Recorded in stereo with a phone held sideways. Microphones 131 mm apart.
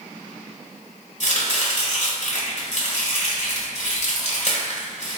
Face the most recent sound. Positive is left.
turn(degrees=55)  # may be behind; listen again after turning